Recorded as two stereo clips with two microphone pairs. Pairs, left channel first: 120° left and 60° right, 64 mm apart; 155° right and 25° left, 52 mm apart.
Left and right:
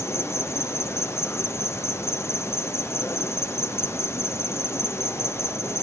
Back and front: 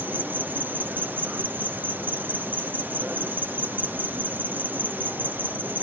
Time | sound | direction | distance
0.0 | an insect | 75° left | ?